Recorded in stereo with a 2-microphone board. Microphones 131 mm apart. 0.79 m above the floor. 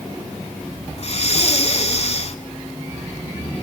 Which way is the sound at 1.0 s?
55° left (ahead or behind).